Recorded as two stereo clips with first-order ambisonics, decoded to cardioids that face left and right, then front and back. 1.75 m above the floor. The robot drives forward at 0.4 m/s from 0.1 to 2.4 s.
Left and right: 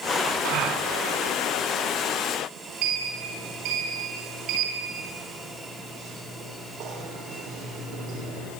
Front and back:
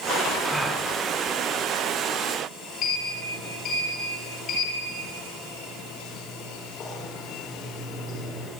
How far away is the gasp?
About 3 m.